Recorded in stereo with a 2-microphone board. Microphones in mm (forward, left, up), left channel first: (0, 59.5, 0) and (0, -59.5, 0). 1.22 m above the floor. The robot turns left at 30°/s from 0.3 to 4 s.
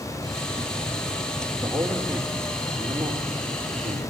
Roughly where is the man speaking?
Centre.